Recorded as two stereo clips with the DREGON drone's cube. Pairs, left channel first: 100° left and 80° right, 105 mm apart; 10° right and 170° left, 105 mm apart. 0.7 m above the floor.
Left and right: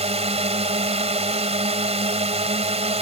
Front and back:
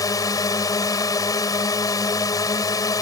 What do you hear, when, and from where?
0.0 s a drone: 65° right